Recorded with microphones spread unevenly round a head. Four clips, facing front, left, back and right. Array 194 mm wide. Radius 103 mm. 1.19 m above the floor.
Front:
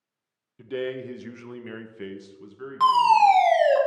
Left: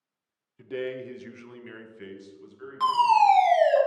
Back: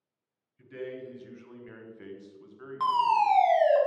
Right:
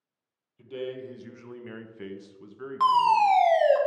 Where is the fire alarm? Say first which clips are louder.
Left 1 dB, front 7 dB; 40° right, 3 m.